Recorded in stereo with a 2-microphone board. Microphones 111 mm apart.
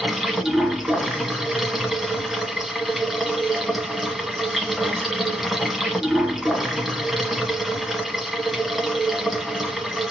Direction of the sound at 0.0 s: Centre (ahead or behind).